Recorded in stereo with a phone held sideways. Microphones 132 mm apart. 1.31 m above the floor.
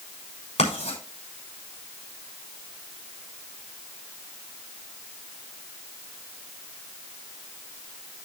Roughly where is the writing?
Left.